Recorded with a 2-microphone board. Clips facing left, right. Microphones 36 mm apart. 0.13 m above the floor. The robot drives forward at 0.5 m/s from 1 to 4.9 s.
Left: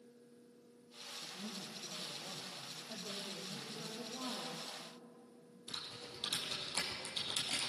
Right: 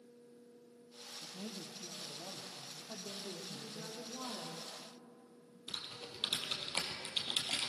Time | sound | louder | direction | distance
1.2 | a man speaking | right 1 dB | 45° right (ahead or behind) | 3 m
2.9 | a woman speaking | even | 30° right (ahead or behind) | 4 m
5.7 | typing on a keyboard | right 2 dB | 40° right (ahead or behind) | 3.5 m